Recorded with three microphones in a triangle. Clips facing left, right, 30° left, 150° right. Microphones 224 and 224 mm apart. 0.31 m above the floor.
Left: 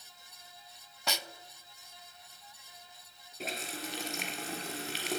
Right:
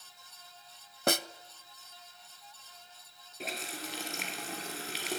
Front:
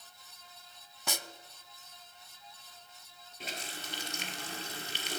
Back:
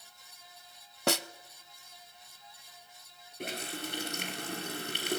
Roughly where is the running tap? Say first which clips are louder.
Left 1 dB, back 7 dB; behind.